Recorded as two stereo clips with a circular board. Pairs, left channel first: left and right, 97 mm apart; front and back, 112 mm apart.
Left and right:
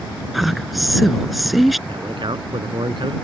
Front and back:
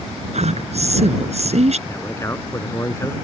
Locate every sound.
0.3 s a woman speaking: straight behind
1.9 s a man speaking: 65° right